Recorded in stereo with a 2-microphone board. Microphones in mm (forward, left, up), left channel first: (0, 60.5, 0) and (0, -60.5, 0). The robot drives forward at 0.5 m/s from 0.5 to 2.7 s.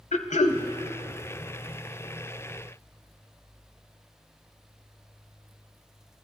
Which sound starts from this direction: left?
Throat clearing, at 0.1 s.